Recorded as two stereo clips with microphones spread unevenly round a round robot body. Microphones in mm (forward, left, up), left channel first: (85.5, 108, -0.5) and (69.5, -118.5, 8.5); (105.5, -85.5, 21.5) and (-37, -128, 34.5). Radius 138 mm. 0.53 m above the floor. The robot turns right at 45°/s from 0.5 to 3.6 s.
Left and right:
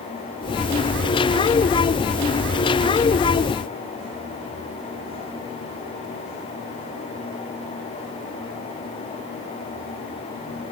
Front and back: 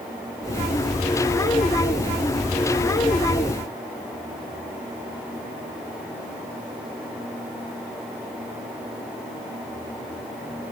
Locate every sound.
Only background noise.